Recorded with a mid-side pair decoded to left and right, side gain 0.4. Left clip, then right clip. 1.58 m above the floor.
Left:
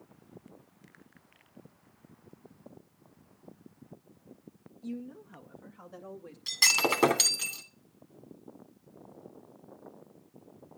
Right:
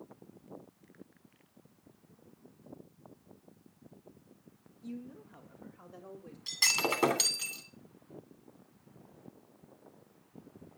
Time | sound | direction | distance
4.8 | a woman speaking | 50° left | 1.4 m
6.5 | breaking glass | 35° left | 2.5 m